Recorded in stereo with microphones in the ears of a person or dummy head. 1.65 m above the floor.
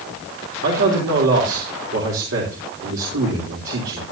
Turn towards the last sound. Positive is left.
turn(degrees=-80)